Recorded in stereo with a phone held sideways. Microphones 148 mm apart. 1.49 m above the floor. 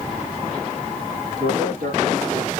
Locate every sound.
1.4 s a man speaking: 85° right, 2.5 m